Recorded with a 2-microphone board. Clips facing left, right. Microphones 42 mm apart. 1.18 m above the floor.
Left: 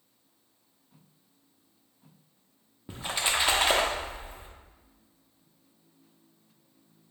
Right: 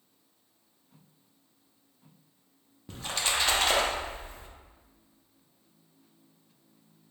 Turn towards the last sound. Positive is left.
turn(degrees=15)  # may be behind; listen again after turning